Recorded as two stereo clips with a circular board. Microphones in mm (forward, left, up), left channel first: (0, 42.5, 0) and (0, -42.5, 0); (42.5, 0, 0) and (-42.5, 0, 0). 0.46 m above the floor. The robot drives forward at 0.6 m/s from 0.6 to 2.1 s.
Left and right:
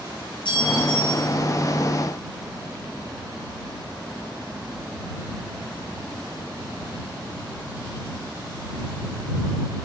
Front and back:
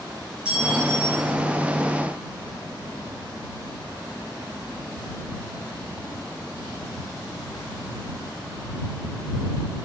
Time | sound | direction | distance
0.5 | a clink | 100° left | 4 m